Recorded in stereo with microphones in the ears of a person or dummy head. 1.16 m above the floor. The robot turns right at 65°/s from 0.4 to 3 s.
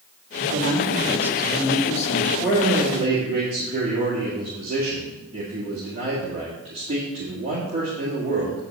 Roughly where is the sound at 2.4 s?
Behind.